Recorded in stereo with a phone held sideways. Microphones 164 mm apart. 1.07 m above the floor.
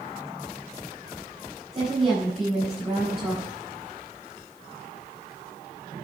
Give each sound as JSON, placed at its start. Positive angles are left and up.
{"t": 1.7, "sound": "a woman speaking", "side_deg": -40, "distance_m": 5.0}